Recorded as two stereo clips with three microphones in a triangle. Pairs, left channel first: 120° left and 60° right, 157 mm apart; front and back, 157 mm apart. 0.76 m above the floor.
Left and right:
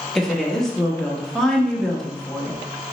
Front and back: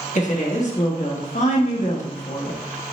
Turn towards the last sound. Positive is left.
turn(degrees=35)